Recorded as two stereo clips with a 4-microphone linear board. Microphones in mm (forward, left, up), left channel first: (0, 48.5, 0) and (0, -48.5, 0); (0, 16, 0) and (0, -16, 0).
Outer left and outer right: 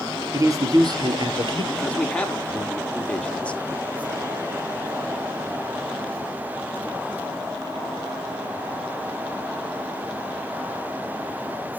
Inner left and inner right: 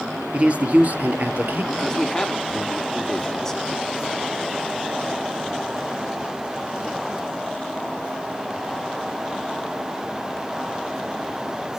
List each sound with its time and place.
0.3 s a man speaking: 35° right (ahead or behind), 2.5 m; by 1.6 s 60° right (ahead or behind), 3 m
1.7 s a man speaking: 15° left (ahead or behind), 1.7 m